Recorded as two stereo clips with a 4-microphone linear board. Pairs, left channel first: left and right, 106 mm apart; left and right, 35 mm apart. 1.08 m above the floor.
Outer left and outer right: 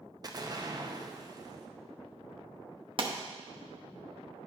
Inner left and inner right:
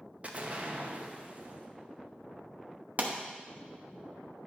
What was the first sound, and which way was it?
An explosion, 40° right (ahead or behind).